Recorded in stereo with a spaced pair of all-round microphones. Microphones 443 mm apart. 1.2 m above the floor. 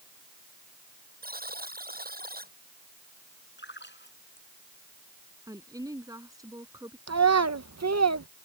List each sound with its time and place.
1.2 s a buzzer: 20° right (ahead or behind)
3.6 s a splash: 25° left (ahead or behind)
5.5 s a woman speaking: 10° right (ahead or behind)
7.1 s a child speaking: 35° right (ahead or behind)